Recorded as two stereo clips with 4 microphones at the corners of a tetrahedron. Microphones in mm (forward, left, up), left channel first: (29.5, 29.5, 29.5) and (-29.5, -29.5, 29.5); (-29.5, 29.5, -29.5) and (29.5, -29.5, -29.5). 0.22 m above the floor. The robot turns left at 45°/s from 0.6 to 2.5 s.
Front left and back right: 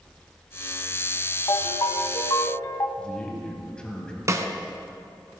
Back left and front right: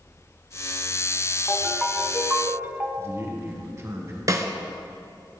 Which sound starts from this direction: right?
A snare drum, at 4.3 s.